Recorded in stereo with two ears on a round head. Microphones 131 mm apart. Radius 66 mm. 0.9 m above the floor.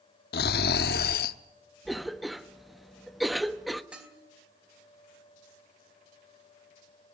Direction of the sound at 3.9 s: 10° right (ahead or behind).